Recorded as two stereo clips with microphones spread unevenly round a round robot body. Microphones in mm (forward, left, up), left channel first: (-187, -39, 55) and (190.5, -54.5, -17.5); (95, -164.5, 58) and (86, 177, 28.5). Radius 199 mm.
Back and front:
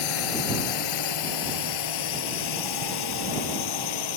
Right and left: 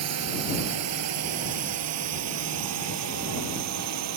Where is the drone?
145° left; by 4.2 s 140° left.